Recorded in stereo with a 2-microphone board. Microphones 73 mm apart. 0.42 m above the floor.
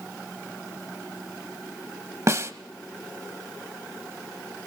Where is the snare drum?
40° right (ahead or behind), 0.8 m.